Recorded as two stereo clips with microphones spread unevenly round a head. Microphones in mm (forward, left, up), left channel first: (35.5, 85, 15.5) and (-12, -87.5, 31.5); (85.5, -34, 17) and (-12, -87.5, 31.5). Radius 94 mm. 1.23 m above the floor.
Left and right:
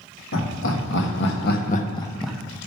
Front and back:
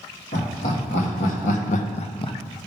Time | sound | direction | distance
0.3 | laughter | 60° left | 2.0 m